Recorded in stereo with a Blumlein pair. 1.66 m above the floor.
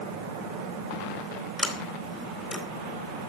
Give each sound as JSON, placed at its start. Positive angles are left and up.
{"t": 1.6, "sound": "a sliding door", "azimuth_deg": 15, "distance_m": 3.5}